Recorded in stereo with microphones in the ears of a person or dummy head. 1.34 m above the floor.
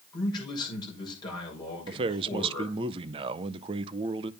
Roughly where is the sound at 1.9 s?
Right.